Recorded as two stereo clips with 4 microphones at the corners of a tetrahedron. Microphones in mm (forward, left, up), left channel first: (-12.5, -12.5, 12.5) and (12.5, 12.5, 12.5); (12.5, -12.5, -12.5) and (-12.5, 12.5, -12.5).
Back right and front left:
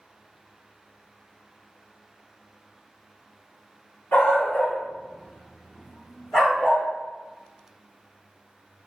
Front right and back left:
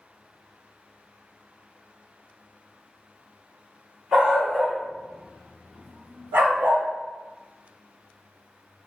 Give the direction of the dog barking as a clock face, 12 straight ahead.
6 o'clock.